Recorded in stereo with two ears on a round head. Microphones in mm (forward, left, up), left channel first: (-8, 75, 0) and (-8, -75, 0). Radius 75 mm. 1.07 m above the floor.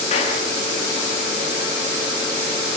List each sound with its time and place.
0.1 s a clap: 40° left (ahead or behind), 9.5 m